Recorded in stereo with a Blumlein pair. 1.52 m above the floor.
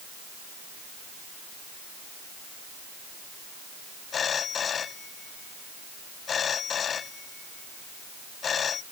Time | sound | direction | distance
4.1 | a phone ringing | 25° left | ?